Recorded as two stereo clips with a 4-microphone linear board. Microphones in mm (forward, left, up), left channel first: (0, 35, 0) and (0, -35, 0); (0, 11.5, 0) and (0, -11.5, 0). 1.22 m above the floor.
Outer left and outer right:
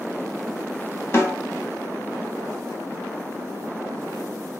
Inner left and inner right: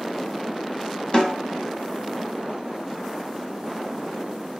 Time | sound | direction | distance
1.1 | a snare drum | 35° left (ahead or behind) | 0.8 m